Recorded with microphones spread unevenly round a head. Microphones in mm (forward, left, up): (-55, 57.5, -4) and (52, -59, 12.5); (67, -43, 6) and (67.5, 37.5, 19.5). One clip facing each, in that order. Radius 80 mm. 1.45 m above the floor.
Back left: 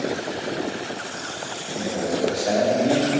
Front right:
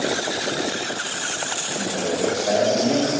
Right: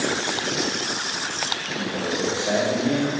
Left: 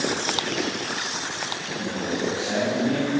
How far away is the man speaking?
About 3.5 m.